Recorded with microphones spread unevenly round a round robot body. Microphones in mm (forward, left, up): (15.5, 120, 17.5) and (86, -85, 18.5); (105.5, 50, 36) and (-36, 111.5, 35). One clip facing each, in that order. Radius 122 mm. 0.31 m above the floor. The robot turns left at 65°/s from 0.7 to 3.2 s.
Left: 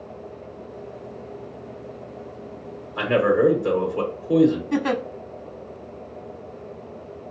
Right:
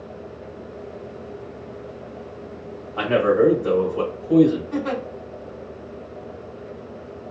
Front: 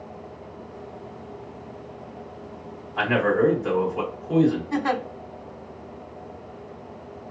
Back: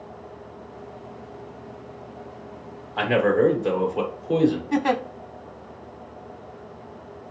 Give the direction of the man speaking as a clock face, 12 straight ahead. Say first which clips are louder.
Right 1 dB, back 2 dB; 6 o'clock.